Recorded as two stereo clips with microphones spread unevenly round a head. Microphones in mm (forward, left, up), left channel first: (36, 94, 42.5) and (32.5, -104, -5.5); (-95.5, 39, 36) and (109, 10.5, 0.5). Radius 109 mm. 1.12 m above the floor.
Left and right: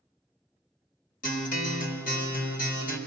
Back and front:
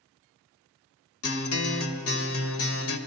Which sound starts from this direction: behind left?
A guitar, at 1.2 s.